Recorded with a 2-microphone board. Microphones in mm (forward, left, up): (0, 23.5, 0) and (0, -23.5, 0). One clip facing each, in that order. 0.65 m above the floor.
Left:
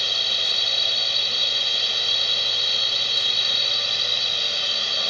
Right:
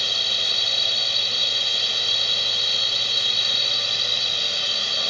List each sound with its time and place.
0.0 s a drone: 5° left (ahead or behind)